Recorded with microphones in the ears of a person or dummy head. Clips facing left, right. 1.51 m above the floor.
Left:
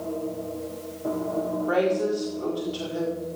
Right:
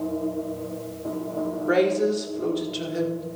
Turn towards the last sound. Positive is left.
turn(degrees=-25)  # may be behind; listen again after turning